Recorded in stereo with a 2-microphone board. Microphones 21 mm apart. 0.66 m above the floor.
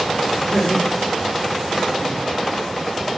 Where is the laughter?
55° left (ahead or behind), 1.9 m; by 2.2 s 5° right (ahead or behind), 1.3 m.